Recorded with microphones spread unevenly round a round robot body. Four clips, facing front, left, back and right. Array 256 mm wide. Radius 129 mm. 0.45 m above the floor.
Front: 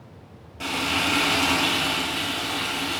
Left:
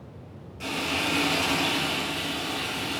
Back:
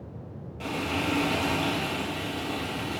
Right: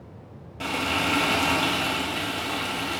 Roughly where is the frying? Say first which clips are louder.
Right 3 dB, front 3 dB; ahead right.